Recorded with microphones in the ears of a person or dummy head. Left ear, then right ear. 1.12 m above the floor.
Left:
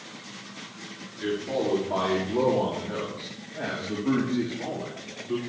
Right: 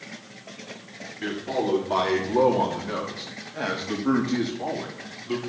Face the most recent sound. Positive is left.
turn(degrees=-70)  # may be behind; listen again after turning